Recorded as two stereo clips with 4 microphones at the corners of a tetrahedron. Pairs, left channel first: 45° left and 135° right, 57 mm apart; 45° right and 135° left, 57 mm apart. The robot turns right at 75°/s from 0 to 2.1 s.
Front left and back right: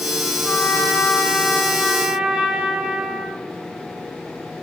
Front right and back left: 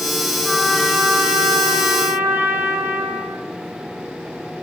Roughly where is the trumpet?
Ahead left.